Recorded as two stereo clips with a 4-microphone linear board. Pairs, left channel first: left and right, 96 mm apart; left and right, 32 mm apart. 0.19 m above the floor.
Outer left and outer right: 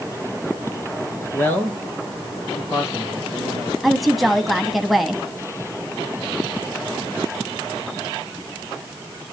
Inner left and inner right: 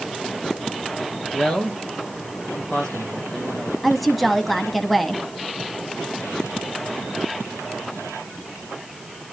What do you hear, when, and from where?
1.3 s a man speaking: 20° left (ahead or behind), 3.5 m
3.8 s a woman speaking: centre (ahead or behind), 1.0 m